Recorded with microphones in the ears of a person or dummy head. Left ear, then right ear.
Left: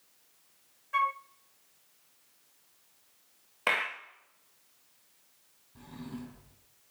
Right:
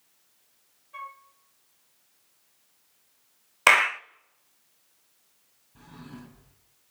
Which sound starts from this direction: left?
A flute, at 0.9 s.